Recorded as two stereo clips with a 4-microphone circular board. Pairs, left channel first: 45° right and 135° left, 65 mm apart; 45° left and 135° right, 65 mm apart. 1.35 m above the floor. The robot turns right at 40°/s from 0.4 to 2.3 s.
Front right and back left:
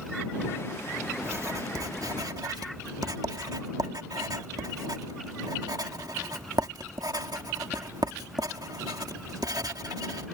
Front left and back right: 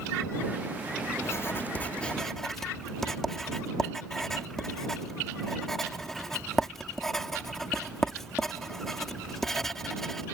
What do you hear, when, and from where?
1.2 s writing: 85° left; by 10.2 s 130° left